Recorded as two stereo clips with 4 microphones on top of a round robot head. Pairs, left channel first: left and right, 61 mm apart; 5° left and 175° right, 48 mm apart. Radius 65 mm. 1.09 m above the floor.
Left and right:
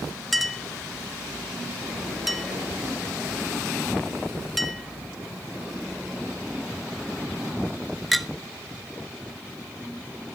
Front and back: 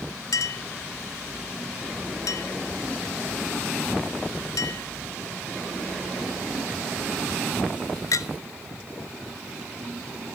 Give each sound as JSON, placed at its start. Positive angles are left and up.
{"t": 0.3, "sound": "a clink", "azimuth_deg": 0, "distance_m": 0.8}